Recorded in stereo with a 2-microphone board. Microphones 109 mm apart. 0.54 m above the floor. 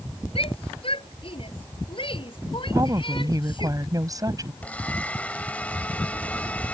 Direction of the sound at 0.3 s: 55° left (ahead or behind).